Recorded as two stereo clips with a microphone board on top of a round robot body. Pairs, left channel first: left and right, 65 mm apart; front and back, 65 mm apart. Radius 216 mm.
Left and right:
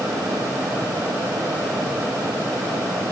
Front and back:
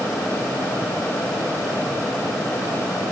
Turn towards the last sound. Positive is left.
No sound to turn to.